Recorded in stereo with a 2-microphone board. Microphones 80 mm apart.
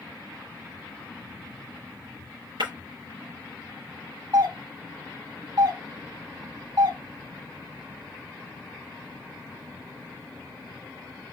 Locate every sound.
2.6 s breaking glass: 85° right, 3 m
4.3 s a doorbell: 65° right (ahead or behind), 3 m